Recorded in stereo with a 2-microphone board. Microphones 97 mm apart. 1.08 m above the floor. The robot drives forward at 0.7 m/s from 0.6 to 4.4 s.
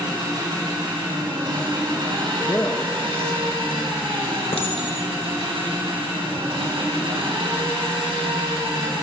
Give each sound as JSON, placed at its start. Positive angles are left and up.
{"t": 0.0, "sound": "an engine running", "side_deg": -50, "distance_m": 5.0}
{"t": 2.4, "sound": "a man speaking", "side_deg": 30, "distance_m": 0.7}
{"t": 4.5, "sound": "a clink", "side_deg": 80, "distance_m": 3.0}